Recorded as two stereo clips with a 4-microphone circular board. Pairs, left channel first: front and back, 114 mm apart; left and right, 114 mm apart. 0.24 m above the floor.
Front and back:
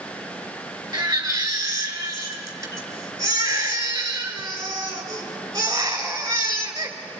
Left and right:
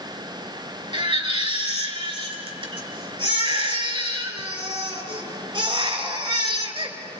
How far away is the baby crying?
About 3 m.